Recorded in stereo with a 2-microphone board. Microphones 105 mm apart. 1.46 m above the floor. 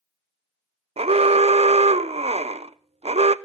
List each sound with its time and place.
1.0 s an alarm: 75° right (ahead or behind), 0.6 m